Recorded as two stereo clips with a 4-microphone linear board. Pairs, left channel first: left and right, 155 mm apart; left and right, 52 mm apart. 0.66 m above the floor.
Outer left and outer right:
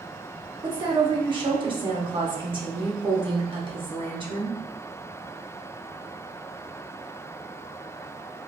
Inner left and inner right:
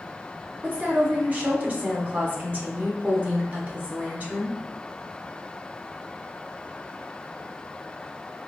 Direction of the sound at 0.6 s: 30° right (ahead or behind).